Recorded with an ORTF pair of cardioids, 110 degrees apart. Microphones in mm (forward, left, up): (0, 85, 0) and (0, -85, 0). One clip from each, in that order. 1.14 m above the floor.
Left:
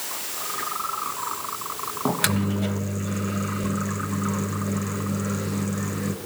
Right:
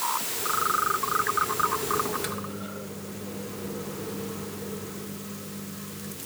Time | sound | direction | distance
2.0 | a microwave | 65° left | 0.6 m